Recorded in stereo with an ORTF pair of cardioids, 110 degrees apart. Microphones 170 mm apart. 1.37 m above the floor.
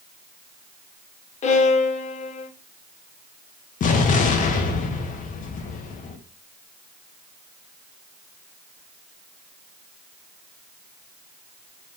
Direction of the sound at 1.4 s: 45° left.